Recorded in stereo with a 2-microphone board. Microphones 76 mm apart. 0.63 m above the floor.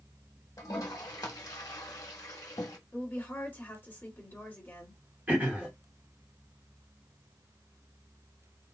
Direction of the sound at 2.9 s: 30° left (ahead or behind).